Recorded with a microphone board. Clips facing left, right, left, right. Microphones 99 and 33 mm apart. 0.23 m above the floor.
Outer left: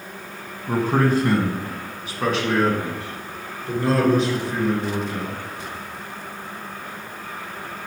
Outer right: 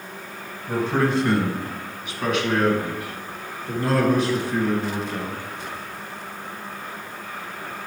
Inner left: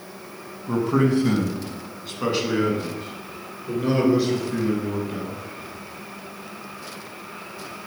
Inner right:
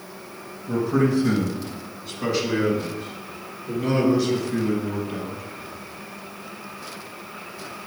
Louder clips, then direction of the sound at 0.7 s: Outer left 2 dB, inner left 1 dB; 50° left (ahead or behind).